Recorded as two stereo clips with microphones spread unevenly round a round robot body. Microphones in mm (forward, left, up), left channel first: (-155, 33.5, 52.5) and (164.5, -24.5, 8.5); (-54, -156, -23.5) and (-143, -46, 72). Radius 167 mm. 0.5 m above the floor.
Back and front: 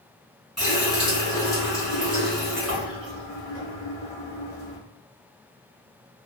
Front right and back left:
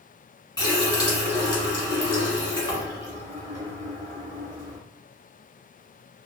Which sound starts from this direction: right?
A running tap, at 0.6 s.